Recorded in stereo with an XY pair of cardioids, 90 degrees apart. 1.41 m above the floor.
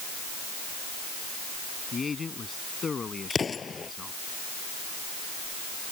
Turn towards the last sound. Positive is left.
turn(degrees=40)